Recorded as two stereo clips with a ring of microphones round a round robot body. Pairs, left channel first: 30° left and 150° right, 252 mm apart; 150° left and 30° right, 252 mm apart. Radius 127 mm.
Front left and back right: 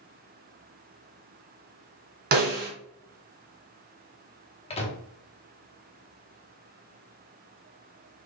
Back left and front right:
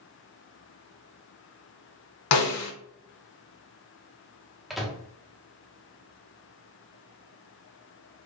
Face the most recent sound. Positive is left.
turn(degrees=60)